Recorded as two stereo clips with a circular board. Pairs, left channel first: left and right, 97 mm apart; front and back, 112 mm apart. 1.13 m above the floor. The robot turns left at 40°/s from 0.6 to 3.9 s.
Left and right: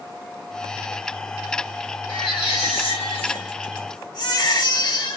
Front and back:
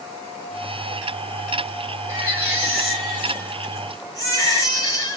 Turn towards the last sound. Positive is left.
turn(degrees=55)